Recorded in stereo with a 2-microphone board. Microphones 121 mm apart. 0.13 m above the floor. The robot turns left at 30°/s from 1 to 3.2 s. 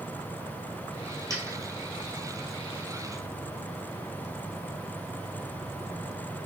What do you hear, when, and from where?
1.3 s a dropped coin: 25° right (ahead or behind), 0.9 m; by 1.6 s 20° right (ahead or behind), 0.9 m